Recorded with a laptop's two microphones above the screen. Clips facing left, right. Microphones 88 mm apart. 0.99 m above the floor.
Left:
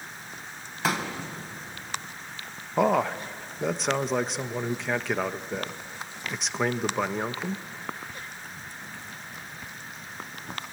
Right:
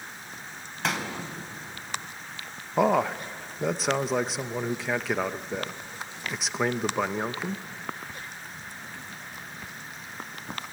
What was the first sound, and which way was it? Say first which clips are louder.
A pop: left 2 dB; 5° left (ahead or behind).